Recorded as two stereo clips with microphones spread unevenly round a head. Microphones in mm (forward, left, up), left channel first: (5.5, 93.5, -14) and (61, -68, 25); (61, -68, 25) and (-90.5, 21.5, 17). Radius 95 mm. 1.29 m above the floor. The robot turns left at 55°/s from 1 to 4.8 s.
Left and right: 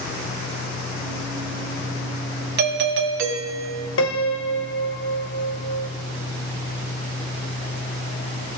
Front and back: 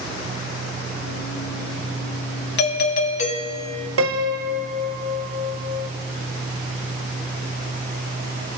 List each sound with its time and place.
2.6 s a doorbell: 45° right, 1.6 m; by 3.9 s 115° right, 1.6 m
4.0 s a piano: 130° left, 1.0 m; by 5.9 s 85° left, 1.0 m